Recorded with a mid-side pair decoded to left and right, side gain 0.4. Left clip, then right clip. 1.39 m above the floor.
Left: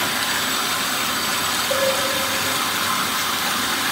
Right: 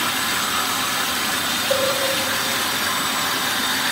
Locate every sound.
1.7 s a cowbell: 25° right, 4.5 m